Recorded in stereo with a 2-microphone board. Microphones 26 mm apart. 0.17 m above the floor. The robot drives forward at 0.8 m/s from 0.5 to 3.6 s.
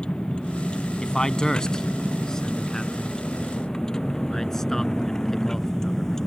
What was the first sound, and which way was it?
A vehicle, 40° left (ahead or behind).